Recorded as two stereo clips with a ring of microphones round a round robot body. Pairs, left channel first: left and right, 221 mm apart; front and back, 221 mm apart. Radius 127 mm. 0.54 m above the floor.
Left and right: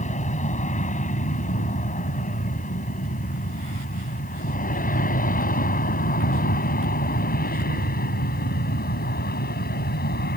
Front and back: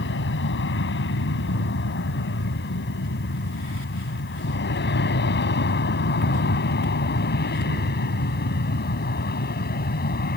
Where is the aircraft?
35° left; by 10.4 s 45° left.